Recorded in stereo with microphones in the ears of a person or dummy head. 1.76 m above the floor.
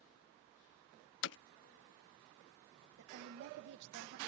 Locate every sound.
1.2 s hammering: 65° left (ahead or behind)
3.0 s a woman speaking: 50° right (ahead or behind)